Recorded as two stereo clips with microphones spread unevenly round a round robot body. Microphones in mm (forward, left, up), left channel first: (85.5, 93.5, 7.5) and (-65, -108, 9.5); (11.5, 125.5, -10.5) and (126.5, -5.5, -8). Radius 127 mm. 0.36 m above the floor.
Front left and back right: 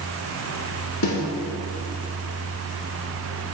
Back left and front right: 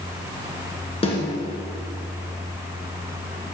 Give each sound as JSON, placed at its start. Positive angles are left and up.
{"t": 1.0, "sound": "a snare drum", "azimuth_deg": 75, "distance_m": 2.5}